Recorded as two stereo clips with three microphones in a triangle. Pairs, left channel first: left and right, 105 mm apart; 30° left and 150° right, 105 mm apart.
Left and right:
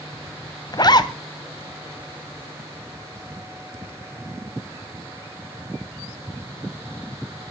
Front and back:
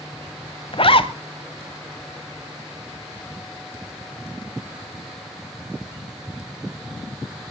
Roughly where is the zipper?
Ahead left.